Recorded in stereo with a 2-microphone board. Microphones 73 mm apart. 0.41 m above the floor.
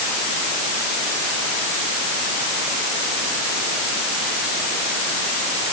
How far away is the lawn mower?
I don't hear a lawn mower.